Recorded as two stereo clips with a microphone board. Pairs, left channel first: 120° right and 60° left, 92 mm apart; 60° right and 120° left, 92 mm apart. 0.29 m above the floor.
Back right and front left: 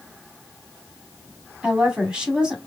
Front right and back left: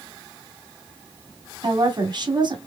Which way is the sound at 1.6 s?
140° left.